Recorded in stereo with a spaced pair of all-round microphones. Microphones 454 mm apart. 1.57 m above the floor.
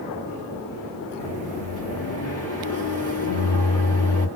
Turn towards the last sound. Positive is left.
turn(degrees=30)  # may be behind; listen again after turning